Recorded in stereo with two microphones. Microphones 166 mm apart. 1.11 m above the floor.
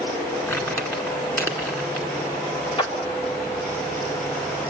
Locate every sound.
0.5 s crumpling: 10° left (ahead or behind), 2 m
2.8 s a clap: 30° left (ahead or behind), 1.9 m